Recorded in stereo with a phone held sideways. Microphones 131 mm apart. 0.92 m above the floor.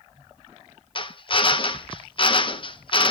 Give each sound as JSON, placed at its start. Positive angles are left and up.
{"t": 0.9, "sound": "a drill", "side_deg": 40, "distance_m": 0.6}